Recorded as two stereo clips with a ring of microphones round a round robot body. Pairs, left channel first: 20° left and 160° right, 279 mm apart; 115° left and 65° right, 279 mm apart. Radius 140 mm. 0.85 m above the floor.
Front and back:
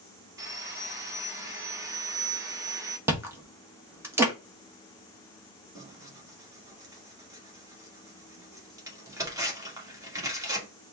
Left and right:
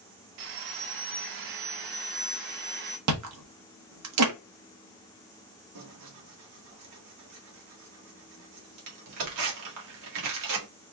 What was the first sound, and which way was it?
Sawing, 80° right.